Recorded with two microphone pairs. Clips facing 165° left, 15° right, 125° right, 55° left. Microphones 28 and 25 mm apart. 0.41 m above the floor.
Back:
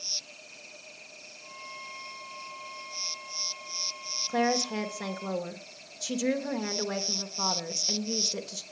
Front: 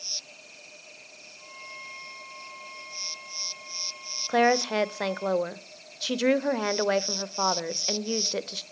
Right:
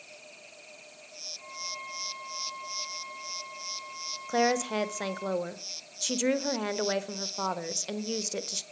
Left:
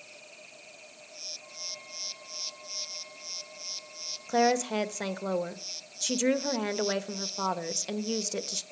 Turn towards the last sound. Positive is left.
turn(degrees=-40)